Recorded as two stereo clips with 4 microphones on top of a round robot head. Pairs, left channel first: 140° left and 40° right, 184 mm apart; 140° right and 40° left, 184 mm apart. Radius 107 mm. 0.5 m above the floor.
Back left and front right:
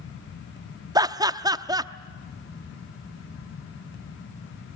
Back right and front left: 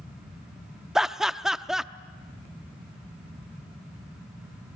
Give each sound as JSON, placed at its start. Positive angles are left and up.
{"t": 0.9, "sound": "laughter", "azimuth_deg": -45, "distance_m": 0.7}